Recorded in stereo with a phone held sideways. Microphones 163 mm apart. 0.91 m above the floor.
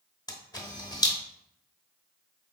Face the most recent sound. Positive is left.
turn(degrees=25)  # may be behind; listen again after turning